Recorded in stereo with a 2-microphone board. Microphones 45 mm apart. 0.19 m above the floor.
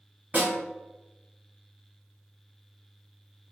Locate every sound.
0.3 s a snare drum: 40° right (ahead or behind), 1.0 m